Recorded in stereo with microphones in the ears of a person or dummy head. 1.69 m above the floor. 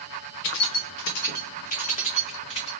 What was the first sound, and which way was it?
Keys jangling, 60° left (ahead or behind).